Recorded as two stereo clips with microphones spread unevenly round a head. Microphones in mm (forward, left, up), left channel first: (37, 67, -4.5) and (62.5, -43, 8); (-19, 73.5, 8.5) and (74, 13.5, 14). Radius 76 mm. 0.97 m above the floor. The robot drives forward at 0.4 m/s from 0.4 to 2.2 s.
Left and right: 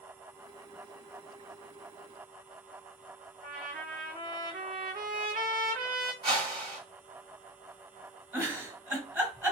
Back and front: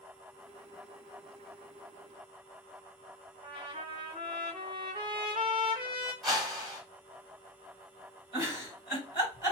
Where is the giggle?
150° right, 1.6 m.